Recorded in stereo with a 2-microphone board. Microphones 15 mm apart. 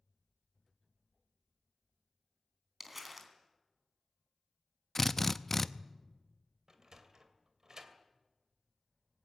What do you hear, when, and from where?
2.8 s crumpling: 10° right (ahead or behind), 3.5 m
5.0 s a drill: 15° left (ahead or behind), 0.7 m
6.7 s a sliding door: 40° right (ahead or behind), 2.5 m